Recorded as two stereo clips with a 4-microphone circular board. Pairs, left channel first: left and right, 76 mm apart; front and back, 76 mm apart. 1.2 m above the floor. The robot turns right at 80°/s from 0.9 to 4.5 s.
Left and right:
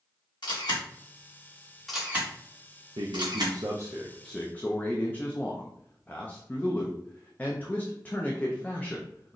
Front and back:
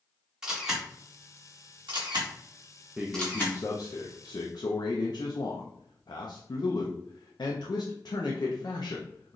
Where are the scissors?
No scissors in this recording.